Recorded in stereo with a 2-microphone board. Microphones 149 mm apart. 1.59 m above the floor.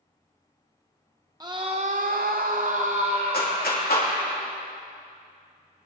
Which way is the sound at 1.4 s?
25° right (ahead or behind).